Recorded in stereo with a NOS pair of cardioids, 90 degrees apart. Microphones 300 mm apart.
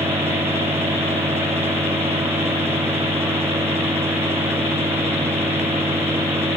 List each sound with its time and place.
0.0 s a fan: 10° right, 0.9 m